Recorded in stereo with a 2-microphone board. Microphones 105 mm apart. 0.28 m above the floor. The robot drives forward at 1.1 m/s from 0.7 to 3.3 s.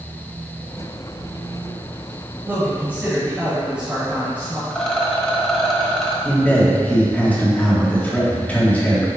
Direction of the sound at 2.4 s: 20° right (ahead or behind).